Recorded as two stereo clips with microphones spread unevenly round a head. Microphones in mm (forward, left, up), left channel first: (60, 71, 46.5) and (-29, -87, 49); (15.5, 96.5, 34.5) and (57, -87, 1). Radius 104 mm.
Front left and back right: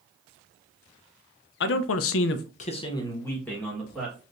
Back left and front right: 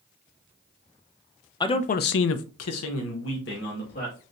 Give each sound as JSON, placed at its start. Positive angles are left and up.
{"t": 1.6, "sound": "a man speaking", "azimuth_deg": 35, "distance_m": 0.6}